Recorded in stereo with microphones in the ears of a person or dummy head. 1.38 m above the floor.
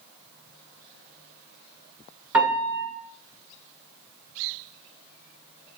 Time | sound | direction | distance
2.3 | a piano | 15° right (ahead or behind) | 1.6 m